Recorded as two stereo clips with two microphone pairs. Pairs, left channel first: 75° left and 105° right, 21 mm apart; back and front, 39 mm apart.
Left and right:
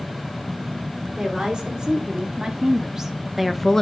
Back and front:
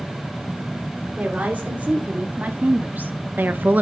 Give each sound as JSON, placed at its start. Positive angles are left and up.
{"t": 1.2, "sound": "a woman speaking", "azimuth_deg": -55, "distance_m": 3.0}